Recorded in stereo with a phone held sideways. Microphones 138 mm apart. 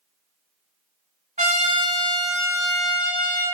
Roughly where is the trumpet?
Right.